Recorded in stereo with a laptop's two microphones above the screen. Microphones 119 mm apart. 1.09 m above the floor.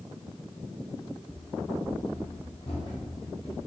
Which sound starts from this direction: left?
Running footsteps, at 1.3 s.